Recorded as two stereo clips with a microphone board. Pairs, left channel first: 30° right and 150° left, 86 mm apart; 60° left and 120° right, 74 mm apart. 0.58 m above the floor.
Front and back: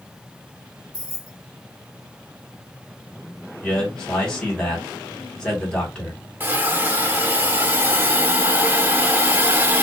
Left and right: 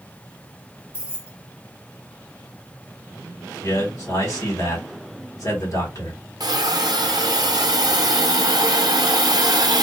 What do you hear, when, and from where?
0.9 s keys jangling: 65° right, 1.1 m
3.6 s a man speaking: 45° left, 1.7 m
6.4 s a hiss: 145° right, 0.5 m